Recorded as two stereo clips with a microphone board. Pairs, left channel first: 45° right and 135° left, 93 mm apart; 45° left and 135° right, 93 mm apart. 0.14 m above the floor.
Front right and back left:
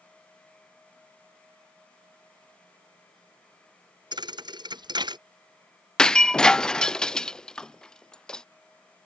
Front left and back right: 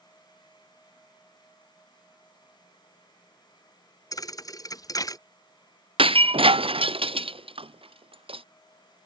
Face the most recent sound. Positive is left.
turn(degrees=-125)